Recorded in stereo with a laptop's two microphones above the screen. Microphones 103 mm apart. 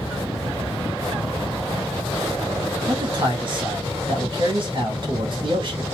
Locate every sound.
2.9 s a man speaking: 50° right (ahead or behind), 1.2 m